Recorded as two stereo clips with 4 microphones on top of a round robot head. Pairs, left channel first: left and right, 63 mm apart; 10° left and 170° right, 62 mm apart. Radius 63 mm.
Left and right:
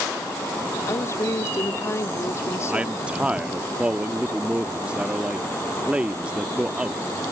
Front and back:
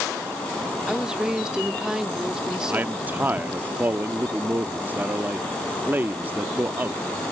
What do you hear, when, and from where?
0.9 s a woman speaking: 115° left
2.7 s a man speaking: 145° right